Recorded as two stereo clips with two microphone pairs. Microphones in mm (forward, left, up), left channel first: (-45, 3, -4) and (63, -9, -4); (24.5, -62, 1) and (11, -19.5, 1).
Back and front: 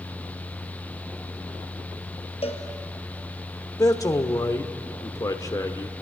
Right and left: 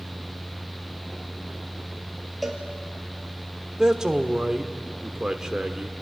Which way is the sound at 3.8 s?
175° left.